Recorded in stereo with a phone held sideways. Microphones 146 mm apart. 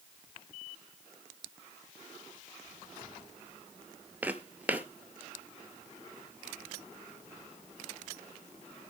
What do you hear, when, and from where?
4.2 s footsteps: 10° right (ahead or behind), 0.9 m